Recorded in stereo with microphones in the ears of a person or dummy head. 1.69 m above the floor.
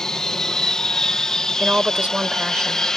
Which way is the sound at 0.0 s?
5° left (ahead or behind).